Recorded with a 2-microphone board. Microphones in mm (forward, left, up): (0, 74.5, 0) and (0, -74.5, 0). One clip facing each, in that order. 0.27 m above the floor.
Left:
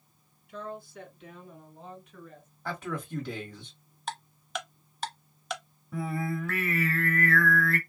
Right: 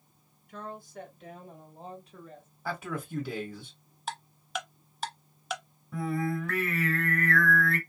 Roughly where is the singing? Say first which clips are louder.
Right 2 dB; centre.